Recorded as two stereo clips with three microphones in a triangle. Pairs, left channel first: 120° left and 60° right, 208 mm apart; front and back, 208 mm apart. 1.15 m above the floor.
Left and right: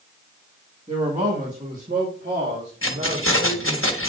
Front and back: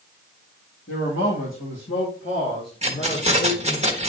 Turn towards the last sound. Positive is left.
turn(degrees=120)